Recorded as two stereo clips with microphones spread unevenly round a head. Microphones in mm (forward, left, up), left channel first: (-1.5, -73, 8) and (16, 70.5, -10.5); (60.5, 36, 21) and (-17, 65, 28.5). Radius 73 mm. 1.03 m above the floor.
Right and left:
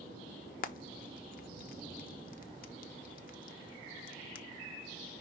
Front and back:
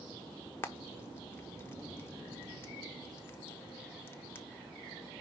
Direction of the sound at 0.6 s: 75° right.